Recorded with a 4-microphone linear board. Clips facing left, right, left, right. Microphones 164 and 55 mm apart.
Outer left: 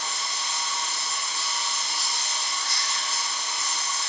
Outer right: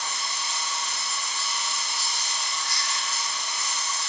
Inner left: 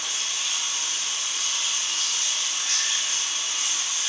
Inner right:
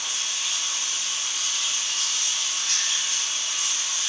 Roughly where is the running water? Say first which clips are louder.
Even, even; left.